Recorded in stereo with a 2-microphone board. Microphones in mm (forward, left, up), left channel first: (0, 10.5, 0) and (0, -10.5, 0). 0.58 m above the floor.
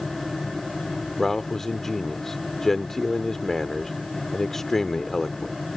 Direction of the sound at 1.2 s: 15° left (ahead or behind).